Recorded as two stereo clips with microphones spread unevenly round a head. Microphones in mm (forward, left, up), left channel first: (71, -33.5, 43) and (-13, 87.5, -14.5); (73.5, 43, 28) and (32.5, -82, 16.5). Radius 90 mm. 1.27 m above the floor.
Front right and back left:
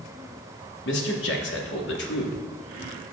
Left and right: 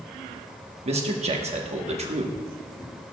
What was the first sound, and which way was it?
A man speaking, 70° right.